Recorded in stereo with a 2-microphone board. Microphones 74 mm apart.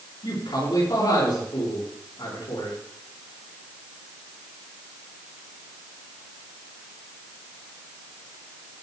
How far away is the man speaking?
About 7 m.